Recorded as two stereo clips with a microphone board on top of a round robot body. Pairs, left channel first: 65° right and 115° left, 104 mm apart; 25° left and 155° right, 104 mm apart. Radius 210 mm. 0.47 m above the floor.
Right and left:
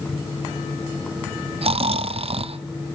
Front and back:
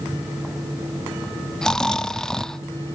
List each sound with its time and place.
1.6 s snoring: 105° left, 0.7 m